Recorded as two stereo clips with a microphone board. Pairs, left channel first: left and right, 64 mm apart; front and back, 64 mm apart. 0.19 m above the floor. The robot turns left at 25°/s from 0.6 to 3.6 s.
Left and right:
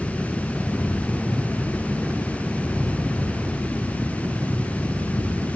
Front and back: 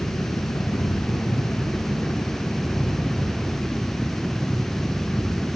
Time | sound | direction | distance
0.0 | a helicopter | 15° right | ?